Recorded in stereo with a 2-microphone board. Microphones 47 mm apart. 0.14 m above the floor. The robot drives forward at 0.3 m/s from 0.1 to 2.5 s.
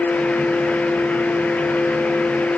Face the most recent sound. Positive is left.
No sound to turn to.